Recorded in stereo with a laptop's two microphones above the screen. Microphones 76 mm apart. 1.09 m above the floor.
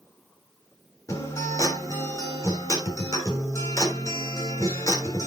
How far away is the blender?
No blender in this recording.